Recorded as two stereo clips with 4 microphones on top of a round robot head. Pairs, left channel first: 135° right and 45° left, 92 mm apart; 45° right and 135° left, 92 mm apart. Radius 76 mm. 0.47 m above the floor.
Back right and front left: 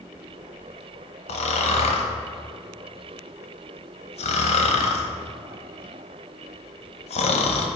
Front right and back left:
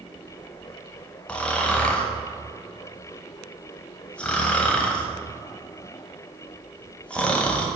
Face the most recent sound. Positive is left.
turn(degrees=-125)